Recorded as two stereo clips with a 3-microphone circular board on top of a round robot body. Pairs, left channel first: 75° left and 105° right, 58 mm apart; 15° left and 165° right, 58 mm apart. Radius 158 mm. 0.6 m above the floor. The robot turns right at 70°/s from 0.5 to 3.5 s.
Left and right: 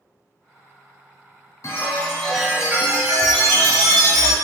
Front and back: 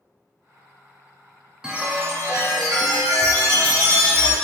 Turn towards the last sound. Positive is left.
turn(degrees=-115)